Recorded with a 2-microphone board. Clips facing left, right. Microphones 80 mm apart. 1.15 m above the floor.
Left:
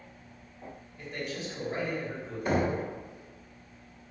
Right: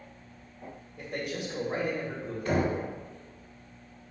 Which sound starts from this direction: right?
A man speaking, at 1.0 s.